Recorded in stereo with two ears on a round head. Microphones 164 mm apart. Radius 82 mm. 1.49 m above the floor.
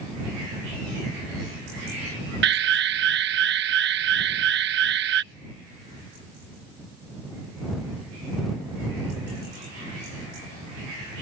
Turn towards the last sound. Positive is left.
turn(degrees=-60)  # may be behind; listen again after turning